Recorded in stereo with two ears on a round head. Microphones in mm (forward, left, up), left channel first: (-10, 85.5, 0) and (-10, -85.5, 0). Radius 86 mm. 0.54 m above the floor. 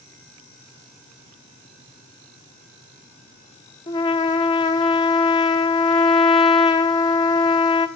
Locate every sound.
3.9 s a trumpet: 20° left (ahead or behind), 1.1 m